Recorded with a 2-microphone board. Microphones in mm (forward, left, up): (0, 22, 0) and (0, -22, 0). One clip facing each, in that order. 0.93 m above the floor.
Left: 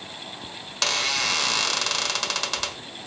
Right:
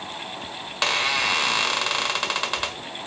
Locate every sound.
0.7 s a squeak: 20° right (ahead or behind), 1.4 m